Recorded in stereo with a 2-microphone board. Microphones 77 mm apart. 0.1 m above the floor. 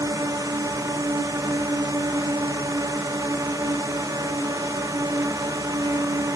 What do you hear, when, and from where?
0.0 s a drone: 50° right (ahead or behind)